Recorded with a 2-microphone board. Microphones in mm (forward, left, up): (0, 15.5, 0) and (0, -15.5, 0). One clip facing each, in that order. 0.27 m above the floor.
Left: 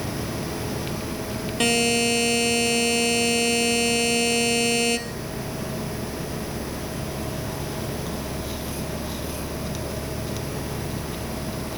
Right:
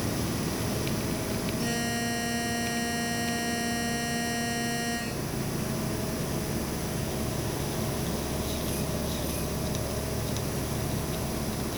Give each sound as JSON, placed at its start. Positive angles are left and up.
{"t": 1.6, "sound": "a buzzer", "side_deg": 80, "distance_m": 2.5}